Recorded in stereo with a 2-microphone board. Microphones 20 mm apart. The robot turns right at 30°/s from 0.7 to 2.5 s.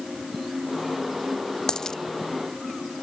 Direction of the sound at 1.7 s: 40° left (ahead or behind).